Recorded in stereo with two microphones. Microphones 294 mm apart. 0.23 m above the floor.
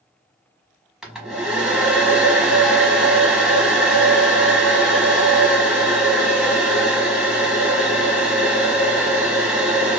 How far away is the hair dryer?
About 1.0 m.